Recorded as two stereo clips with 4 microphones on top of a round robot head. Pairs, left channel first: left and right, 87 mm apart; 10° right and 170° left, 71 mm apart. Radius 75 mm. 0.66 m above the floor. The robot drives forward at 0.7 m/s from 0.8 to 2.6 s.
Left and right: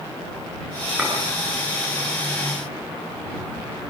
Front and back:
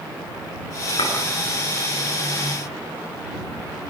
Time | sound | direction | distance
1.0 | a clink | 10° right | 7 m